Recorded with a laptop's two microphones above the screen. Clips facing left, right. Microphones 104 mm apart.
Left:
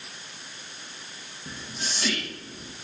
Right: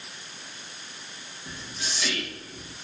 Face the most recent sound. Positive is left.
turn(degrees=40)  # may be behind; listen again after turning